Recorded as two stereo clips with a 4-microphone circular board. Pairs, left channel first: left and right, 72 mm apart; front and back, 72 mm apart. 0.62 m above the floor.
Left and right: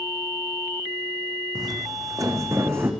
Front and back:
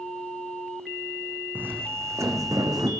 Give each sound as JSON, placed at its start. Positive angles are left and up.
{"t": 1.6, "sound": "footsteps", "azimuth_deg": -115, "distance_m": 2.0}